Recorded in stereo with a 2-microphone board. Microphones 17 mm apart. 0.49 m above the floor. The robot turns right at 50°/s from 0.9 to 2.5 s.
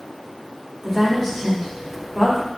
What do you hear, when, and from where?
0.8 s a woman speaking: centre (ahead or behind), 1.2 m; by 2.5 s 25° right (ahead or behind), 1.2 m